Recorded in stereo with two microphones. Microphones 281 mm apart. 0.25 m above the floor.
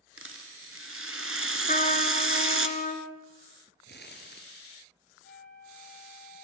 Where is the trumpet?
30° left (ahead or behind), 2.5 m.